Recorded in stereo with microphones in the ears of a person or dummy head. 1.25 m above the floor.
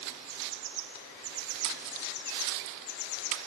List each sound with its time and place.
1.6 s a splash: 65° right (ahead or behind)